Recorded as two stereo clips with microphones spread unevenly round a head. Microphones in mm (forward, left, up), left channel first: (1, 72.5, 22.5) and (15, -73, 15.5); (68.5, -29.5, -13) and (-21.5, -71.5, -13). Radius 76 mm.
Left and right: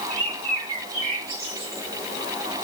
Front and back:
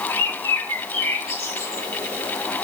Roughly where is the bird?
Ahead right.